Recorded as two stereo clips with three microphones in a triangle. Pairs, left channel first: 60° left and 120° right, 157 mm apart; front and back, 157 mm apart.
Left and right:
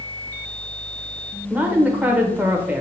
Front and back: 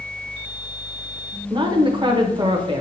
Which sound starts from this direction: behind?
A woman speaking, at 1.5 s.